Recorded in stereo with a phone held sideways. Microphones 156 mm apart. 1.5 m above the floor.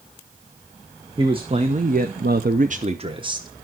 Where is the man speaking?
30° right (ahead or behind), 1.6 m; by 3.5 s 25° right (ahead or behind), 1.7 m.